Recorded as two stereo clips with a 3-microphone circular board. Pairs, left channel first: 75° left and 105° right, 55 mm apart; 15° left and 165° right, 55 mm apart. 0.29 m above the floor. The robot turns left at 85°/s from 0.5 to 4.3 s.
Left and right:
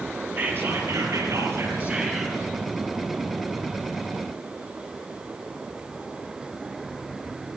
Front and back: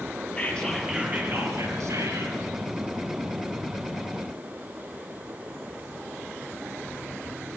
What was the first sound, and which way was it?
Whispering, 50° right.